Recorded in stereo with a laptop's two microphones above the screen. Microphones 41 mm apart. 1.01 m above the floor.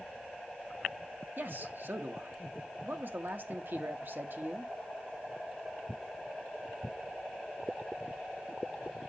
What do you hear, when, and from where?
1.4 s a man speaking: 60° right (ahead or behind), 1.1 m